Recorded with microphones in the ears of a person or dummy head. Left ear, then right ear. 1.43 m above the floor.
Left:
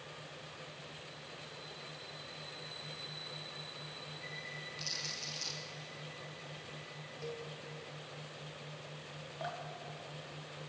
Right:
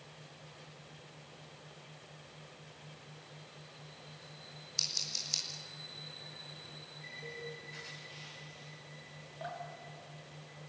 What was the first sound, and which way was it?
Scissors, 85° right.